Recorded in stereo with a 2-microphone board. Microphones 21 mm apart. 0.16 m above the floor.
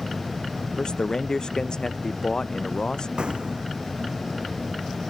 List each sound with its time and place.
0.8 s a man speaking: 40° left (ahead or behind)
3.2 s an explosion: 55° right (ahead or behind)